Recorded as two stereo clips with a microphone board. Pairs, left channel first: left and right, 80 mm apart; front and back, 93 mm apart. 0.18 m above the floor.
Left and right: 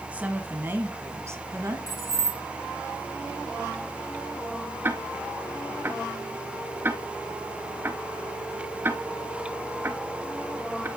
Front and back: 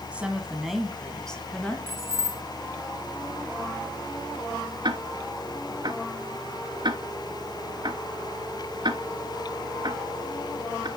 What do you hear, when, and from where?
0.1 s a woman speaking: 130° right, 1.4 m; by 1.8 s 70° right, 1.8 m
1.9 s keys jangling: 120° left, 1.6 m
4.8 s ticking: 150° right, 0.8 m